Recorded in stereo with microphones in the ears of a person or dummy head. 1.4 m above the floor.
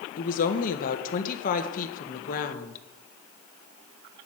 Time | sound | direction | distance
0.2 | a woman speaking | 45° left (ahead or behind) | 1.7 m